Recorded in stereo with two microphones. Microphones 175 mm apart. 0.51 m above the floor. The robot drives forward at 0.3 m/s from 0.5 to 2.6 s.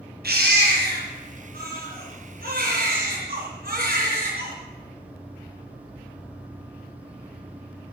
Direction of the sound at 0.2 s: 60° right (ahead or behind).